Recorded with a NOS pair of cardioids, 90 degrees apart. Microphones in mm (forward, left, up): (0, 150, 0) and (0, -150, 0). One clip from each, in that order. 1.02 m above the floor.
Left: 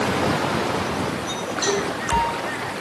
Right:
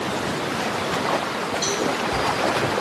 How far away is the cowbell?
About 5 m.